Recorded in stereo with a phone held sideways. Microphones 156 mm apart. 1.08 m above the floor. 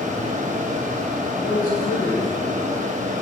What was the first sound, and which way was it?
A fan, 50° right (ahead or behind).